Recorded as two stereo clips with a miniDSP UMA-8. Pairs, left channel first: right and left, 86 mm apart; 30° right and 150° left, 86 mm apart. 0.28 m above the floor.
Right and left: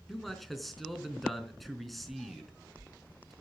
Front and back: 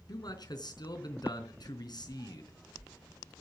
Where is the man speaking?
Straight ahead, 4 m.